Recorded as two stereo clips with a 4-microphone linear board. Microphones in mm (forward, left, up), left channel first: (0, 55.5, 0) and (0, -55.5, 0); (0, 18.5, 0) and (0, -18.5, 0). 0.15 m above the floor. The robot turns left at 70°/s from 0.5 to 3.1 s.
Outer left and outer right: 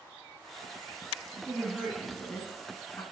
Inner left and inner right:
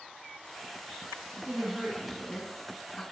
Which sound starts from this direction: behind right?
A woman speaking, at 1.3 s.